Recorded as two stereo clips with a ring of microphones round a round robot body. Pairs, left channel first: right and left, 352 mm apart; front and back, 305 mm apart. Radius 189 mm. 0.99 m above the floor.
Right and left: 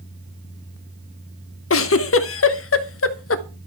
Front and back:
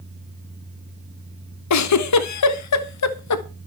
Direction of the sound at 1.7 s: 35° right.